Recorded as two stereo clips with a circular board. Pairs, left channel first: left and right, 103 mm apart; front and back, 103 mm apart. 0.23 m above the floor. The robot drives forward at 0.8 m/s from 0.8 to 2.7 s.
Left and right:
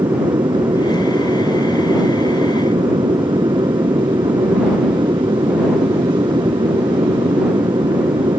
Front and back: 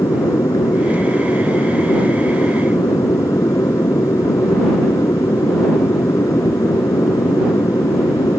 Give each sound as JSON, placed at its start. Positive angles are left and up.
{"t": 0.0, "sound": "an aircraft", "azimuth_deg": -55}